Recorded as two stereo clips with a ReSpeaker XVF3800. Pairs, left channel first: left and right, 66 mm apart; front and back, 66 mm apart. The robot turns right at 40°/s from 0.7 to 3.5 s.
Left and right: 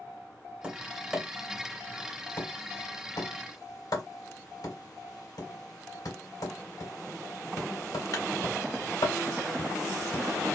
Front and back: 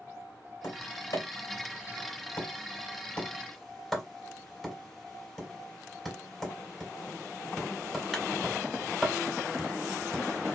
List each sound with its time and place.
0.6 s tapping: 25° right, 2 m; by 10.5 s 85° left, 2 m